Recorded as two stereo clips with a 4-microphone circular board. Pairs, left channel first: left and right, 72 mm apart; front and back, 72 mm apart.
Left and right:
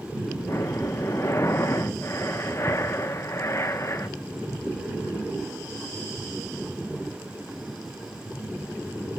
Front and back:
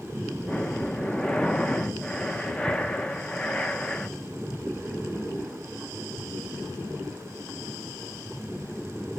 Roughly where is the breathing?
Left.